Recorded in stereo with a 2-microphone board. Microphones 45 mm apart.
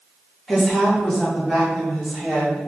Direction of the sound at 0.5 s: 5° left (ahead or behind).